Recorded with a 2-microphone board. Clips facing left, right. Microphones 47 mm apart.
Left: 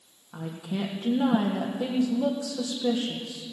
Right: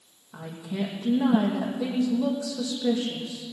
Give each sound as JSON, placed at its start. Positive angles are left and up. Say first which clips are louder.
{"t": 0.3, "sound": "a woman speaking", "louder": "even", "side_deg": 60, "distance_m": 3.5}